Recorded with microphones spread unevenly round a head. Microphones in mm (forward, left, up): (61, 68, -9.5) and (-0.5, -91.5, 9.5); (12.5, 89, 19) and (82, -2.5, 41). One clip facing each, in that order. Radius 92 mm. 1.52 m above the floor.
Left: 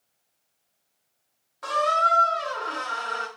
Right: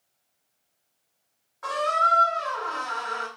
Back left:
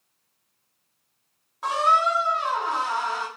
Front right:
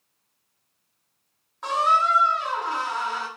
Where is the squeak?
35° left, 1.2 m.